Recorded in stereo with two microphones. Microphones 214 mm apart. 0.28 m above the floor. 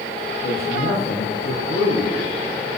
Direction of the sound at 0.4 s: 45° left (ahead or behind).